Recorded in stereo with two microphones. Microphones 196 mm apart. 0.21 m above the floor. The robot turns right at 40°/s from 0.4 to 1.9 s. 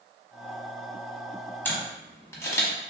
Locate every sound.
1.6 s a camera shutter: 10° left (ahead or behind), 0.8 m; by 2.7 s 15° left (ahead or behind), 0.8 m